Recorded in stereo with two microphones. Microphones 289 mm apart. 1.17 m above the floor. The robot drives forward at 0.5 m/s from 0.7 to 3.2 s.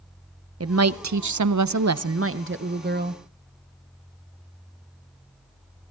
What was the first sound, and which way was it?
A woman speaking, 55° right (ahead or behind).